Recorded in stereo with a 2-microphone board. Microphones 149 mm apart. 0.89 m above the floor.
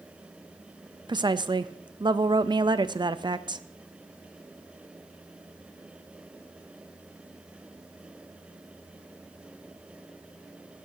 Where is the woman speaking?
30° right (ahead or behind), 0.5 m.